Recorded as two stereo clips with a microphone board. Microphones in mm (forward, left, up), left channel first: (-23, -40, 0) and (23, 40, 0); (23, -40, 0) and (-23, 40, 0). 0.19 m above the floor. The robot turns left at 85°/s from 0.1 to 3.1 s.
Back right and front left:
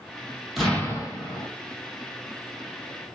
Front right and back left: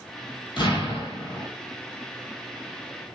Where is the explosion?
30° right, 0.9 m; by 1.5 s 105° right, 0.9 m.